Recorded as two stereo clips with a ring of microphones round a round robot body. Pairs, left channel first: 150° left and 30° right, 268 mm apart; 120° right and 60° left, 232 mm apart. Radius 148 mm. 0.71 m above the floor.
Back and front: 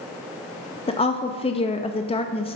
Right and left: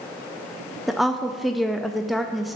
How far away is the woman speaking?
About 0.5 m.